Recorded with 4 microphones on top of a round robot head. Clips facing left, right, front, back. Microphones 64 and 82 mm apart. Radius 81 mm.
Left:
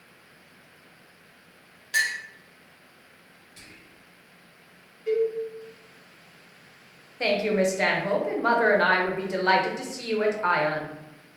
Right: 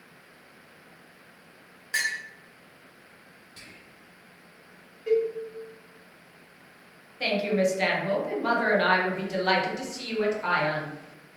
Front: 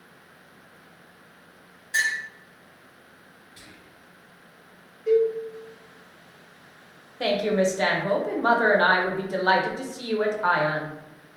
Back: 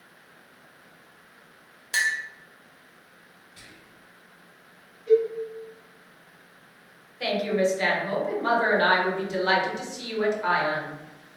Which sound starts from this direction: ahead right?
Whispering, at 3.6 s.